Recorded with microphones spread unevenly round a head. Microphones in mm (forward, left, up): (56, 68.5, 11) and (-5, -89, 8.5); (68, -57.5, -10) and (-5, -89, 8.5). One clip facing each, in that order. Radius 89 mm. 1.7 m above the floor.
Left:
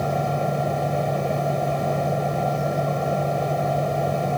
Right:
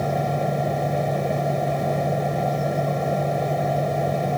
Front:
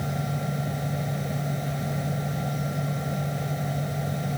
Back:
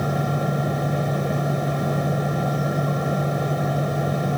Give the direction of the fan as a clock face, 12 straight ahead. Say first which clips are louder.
Even, back 7 dB; 7 o'clock.